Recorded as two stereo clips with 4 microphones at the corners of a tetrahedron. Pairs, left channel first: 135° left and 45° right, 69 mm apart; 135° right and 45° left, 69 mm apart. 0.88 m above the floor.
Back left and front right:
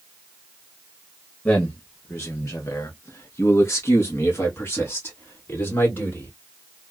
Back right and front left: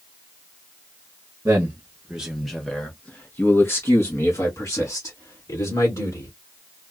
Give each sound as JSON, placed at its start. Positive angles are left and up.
{"t": 1.4, "sound": "a man speaking", "azimuth_deg": 80, "distance_m": 0.7}